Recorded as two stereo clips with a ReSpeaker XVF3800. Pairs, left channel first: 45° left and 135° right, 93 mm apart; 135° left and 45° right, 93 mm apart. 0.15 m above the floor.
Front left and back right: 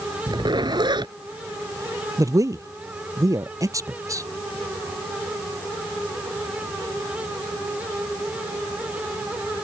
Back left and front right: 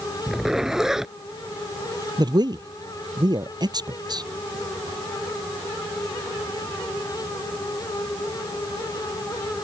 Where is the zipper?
130° right.